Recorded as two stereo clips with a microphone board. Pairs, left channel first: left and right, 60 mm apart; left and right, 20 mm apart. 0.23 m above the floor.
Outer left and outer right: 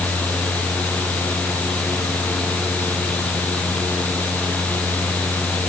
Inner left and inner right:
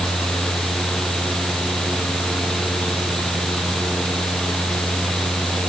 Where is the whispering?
I don't hear whispering.